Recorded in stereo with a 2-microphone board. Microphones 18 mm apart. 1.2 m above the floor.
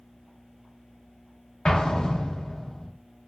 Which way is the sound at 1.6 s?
45° left (ahead or behind).